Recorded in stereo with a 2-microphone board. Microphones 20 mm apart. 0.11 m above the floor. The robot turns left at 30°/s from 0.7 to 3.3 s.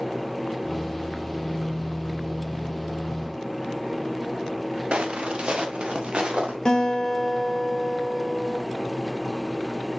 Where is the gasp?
I don't hear a gasp.